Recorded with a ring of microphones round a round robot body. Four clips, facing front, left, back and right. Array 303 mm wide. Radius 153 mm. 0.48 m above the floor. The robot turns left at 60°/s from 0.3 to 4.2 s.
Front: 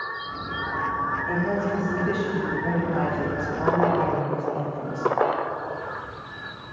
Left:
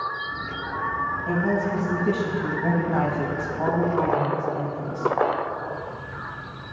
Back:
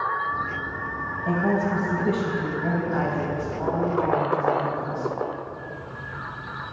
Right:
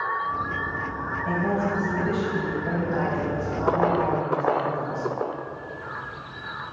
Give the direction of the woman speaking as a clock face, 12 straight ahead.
5 o'clock.